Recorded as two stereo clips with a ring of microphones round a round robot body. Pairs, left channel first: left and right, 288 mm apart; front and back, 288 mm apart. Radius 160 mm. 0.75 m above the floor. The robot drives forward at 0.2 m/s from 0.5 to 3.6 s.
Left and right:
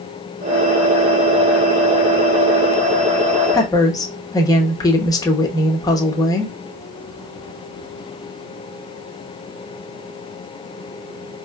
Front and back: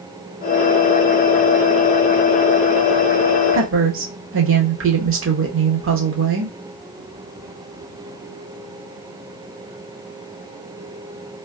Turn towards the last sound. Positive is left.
turn(degrees=165)